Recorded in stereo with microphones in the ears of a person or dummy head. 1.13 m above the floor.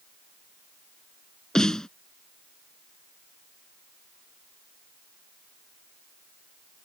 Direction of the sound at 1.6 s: 5° left (ahead or behind).